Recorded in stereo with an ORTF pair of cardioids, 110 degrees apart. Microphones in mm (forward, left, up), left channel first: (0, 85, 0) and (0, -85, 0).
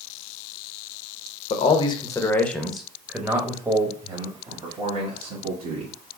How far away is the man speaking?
About 1.0 m.